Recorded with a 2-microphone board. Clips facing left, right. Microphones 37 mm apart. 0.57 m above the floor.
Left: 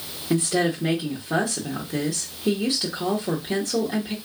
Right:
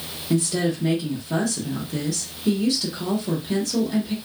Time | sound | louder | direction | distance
0.3 | a woman speaking | left 1 dB | 20° left (ahead or behind) | 0.9 m